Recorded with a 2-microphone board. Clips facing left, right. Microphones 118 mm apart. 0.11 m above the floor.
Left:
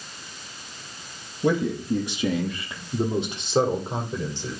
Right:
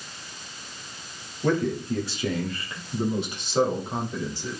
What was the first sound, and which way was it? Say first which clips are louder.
A man speaking: left 1 dB; 15° left (ahead or behind).